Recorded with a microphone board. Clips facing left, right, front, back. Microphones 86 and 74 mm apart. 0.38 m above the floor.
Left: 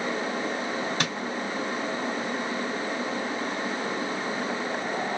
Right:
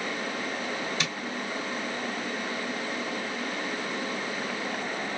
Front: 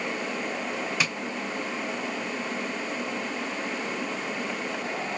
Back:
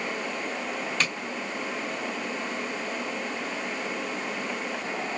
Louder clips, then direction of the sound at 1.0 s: Left 3 dB, back 1 dB; 80° left.